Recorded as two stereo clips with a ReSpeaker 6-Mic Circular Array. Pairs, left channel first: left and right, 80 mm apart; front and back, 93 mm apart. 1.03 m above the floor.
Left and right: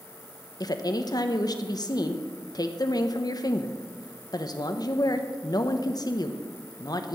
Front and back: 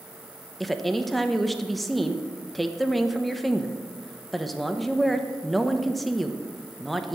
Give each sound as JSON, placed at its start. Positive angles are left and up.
{"t": 0.6, "sound": "a woman speaking", "azimuth_deg": 90, "distance_m": 0.9}